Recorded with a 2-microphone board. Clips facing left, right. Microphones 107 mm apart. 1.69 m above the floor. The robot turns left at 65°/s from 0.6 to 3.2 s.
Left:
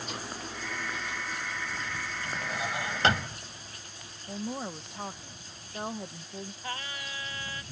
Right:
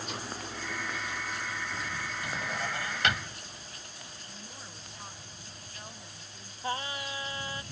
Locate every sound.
2.2 s a drawer: 165° right; by 3.4 s 135° left
4.3 s a woman speaking: 80° left
6.6 s singing: 25° right (ahead or behind)